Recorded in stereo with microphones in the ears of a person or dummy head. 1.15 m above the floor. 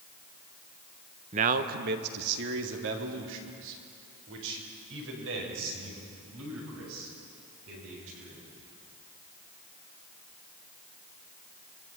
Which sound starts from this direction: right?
A man speaking, at 1.3 s.